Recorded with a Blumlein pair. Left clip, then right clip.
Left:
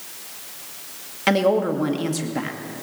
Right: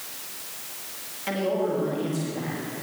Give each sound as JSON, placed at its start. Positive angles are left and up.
{"t": 1.3, "sound": "a woman speaking", "azimuth_deg": 55, "distance_m": 2.0}